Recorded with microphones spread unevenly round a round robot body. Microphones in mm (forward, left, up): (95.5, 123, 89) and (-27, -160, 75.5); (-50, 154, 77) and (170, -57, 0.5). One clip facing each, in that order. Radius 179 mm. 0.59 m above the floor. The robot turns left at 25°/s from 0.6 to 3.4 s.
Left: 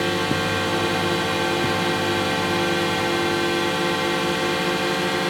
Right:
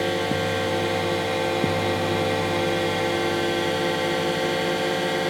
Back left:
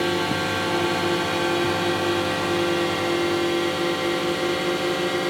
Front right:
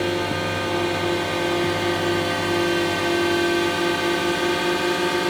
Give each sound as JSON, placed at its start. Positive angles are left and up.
{"t": 0.0, "sound": "a drone", "azimuth_deg": 100}